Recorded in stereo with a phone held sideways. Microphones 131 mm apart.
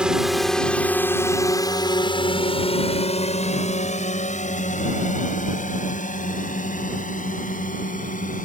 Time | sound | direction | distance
0.0 | a drone | 5° right (ahead or behind) | ?